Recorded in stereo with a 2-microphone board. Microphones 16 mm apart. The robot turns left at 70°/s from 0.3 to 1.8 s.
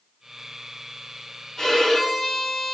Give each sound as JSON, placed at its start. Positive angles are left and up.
{"t": 1.6, "sound": "a violin", "side_deg": 35, "distance_m": 0.9}